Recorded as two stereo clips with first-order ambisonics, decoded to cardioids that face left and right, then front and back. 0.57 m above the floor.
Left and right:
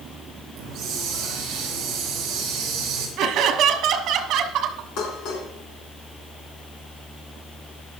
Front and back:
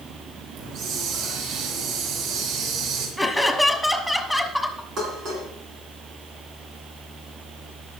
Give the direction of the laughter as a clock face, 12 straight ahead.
3 o'clock.